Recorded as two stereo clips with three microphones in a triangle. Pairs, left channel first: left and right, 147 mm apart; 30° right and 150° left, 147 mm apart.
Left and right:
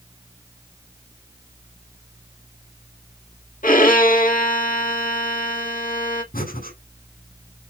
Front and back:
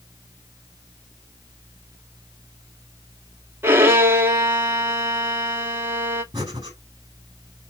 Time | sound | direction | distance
3.6 | a violin | 75° left | 1.7 m
6.3 | breathing | 85° left | 6.5 m